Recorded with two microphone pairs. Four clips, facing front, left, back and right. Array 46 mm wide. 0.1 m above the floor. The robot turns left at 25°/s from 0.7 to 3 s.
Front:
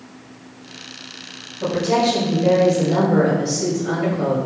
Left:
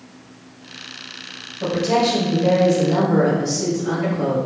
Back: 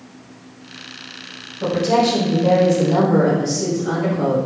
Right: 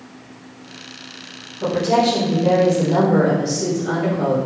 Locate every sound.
1.6 s a woman speaking: 65° left, 1.9 m; by 4.4 s 30° left, 1.9 m